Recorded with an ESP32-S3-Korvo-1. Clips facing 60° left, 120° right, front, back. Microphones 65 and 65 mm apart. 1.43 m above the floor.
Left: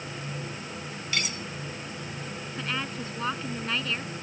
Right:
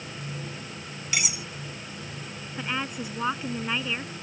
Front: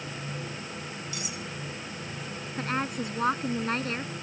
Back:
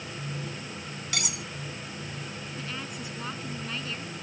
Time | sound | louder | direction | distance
1.1 | cutlery clinking | right 1 dB, back 2 dB | 160° left | ?
2.6 | a woman speaking | right 2 dB, front 10 dB | 45° right | ?